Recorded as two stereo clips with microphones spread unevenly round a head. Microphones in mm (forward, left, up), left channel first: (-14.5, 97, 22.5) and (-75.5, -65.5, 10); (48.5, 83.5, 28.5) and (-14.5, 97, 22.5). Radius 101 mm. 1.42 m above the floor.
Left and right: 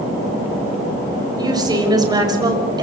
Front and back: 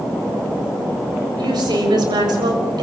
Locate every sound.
1.4 s a woman speaking: straight behind, 6 m